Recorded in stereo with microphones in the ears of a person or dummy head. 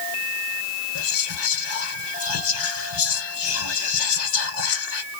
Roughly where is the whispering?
Left.